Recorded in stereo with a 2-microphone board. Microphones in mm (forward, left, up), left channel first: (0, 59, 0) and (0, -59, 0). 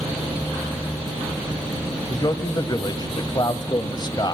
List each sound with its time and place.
2.1 s a man speaking: 35° left (ahead or behind), 1.2 m